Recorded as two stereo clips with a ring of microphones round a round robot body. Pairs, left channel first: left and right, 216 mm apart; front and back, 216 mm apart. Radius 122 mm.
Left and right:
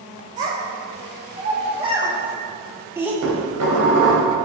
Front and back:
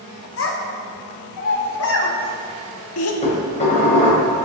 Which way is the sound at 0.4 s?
30° right.